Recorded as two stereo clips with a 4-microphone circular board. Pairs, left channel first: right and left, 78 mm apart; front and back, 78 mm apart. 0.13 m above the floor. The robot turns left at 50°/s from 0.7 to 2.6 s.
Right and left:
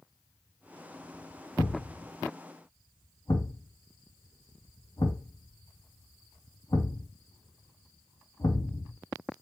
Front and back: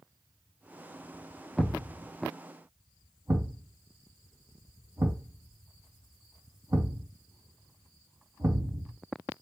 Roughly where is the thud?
Right.